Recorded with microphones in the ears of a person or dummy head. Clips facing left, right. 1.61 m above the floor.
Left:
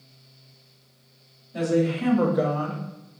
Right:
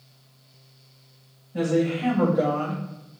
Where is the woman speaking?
75° left (ahead or behind), 1.5 m; by 2.8 s 10° right (ahead or behind), 0.8 m.